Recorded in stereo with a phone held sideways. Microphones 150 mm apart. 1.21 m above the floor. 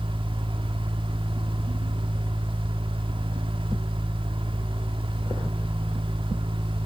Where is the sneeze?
No sneeze in this recording.